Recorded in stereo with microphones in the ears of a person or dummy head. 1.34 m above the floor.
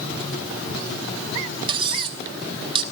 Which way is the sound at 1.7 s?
35° right (ahead or behind).